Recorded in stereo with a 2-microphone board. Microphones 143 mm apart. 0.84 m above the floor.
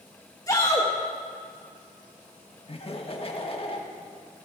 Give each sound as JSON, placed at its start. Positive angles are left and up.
{"t": 0.5, "sound": "a shout", "side_deg": 25, "distance_m": 0.9}
{"t": 2.7, "sound": "laughter", "side_deg": 40, "distance_m": 1.2}